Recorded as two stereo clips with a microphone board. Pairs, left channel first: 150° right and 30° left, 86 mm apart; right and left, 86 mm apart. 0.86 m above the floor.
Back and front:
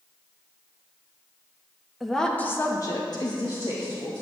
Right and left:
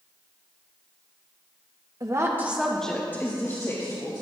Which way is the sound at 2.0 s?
120° left.